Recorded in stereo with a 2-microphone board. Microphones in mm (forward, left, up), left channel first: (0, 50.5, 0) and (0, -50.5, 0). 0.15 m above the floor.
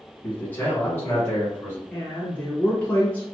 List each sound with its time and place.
0.2 s a man speaking: 15° left (ahead or behind), 1.1 m; by 1.8 s 20° left (ahead or behind), 1.4 m
1.9 s a woman speaking: 15° left (ahead or behind), 1.1 m